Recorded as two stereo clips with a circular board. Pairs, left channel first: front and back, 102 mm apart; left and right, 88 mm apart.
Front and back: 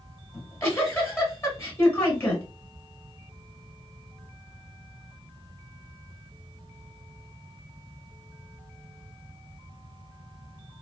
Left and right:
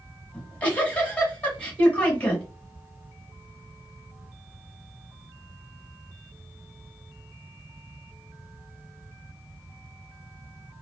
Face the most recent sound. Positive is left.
turn(degrees=30)